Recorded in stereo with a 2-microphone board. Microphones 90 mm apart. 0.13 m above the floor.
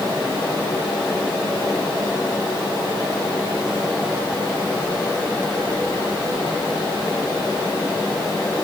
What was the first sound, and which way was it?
Only background noise.